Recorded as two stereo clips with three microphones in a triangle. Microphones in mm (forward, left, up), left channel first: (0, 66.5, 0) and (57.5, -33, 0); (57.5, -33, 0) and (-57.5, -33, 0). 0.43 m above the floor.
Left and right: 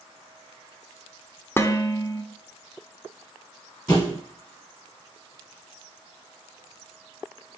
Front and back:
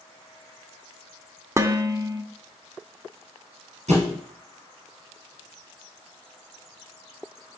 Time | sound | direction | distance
1.6 | dishes clattering | 160° left | 0.6 m
3.9 | a thud | straight behind | 2.5 m